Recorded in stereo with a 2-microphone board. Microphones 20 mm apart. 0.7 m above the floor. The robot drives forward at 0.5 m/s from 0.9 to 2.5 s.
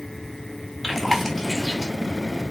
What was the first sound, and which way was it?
Chewing, 5° right (ahead or behind).